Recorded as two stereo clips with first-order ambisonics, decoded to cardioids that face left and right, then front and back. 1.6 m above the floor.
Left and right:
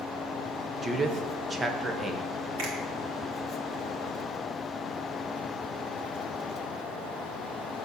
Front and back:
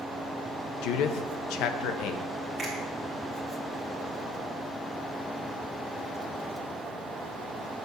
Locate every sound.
0.8 s a man speaking: 15° right, 0.8 m
2.6 s a finger snap: 100° right, 2.5 m